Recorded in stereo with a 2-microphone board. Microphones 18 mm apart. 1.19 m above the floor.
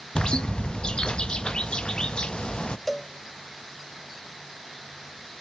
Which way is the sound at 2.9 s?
10° left (ahead or behind).